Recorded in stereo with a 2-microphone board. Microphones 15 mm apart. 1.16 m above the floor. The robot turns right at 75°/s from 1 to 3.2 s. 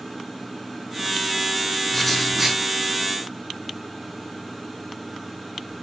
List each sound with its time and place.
1.9 s writing: 160° left, 3.5 m; by 2.6 s 145° right, 3.5 m